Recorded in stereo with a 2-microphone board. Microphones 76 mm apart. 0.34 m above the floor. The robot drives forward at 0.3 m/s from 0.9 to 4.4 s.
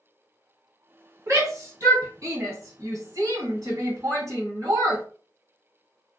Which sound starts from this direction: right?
A shout, at 1.3 s.